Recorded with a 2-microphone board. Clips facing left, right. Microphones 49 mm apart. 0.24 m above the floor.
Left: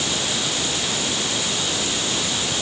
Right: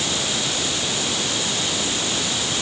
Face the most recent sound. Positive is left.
No sound to turn to.